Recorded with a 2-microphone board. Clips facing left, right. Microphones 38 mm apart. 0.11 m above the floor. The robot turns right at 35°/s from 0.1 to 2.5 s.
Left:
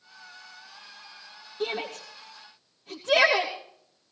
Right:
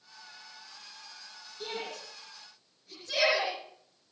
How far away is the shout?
About 3 m.